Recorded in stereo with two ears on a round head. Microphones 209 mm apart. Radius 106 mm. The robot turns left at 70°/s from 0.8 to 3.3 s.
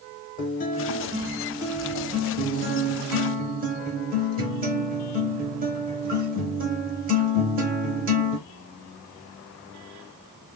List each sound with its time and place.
0.4 s a guitar: 45° left, 1.0 m; by 8.4 s 130° right, 1.0 m